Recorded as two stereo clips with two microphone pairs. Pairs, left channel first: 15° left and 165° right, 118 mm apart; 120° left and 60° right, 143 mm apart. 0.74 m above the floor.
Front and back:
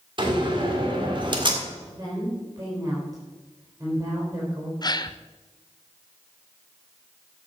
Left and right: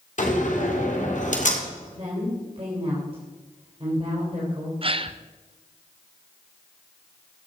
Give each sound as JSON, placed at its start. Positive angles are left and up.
{"t": 0.2, "sound": "a door slam", "azimuth_deg": 150, "distance_m": 1.9}
{"t": 1.9, "sound": "a woman speaking", "azimuth_deg": -105, "distance_m": 3.5}
{"t": 4.8, "sound": "a gasp", "azimuth_deg": -25, "distance_m": 0.5}